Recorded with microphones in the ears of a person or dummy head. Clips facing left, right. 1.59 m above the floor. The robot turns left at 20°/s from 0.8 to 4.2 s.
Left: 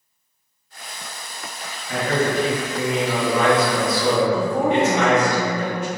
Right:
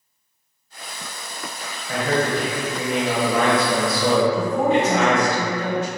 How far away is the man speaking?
About 1.1 m.